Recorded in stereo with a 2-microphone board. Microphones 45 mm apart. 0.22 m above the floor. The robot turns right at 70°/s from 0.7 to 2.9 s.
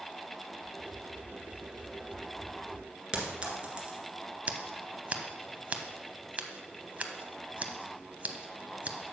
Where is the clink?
25° right (ahead or behind), 1.8 m.